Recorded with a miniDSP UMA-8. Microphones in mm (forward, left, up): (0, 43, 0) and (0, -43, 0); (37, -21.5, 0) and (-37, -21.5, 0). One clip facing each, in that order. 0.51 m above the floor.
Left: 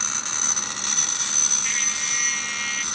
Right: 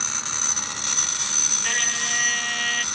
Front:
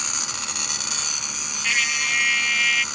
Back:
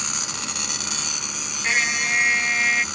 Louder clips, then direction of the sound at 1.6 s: Right 5 dB, back 2 dB; 125° right.